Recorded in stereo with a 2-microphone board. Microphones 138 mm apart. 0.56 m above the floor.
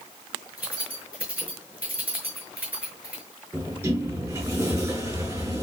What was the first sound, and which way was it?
Keys jangling, 10° right (ahead or behind).